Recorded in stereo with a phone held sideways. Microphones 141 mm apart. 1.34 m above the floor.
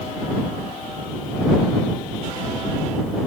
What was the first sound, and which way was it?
Only background noise.